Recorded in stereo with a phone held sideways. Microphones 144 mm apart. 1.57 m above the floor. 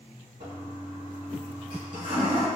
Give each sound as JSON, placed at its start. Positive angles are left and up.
{"t": 0.4, "sound": "a toilet flushing", "side_deg": -55, "distance_m": 1.7}